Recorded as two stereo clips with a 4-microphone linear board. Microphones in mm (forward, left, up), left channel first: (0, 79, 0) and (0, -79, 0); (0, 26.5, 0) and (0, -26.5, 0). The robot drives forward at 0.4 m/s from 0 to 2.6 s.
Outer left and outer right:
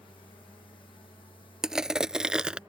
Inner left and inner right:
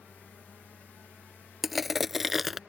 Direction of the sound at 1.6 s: 5° right (ahead or behind).